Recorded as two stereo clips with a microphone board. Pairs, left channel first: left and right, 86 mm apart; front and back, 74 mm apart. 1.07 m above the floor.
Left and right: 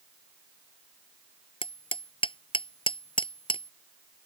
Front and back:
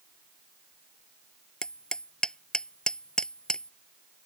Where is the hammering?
80° left.